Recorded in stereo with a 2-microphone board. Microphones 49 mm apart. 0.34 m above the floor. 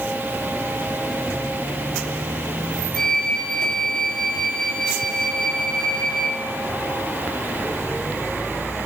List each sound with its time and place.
3.0 s a flute: 10° left (ahead or behind), 1.7 m